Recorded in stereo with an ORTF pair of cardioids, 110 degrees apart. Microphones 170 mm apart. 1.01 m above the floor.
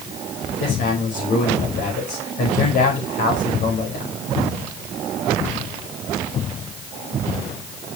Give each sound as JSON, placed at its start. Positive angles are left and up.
{"t": 0.6, "sound": "a man speaking", "azimuth_deg": 65, "distance_m": 5.0}